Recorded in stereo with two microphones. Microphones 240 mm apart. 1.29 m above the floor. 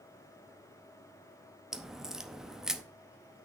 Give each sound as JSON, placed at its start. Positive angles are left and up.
{"t": 1.7, "sound": "a crack", "side_deg": 0, "distance_m": 0.7}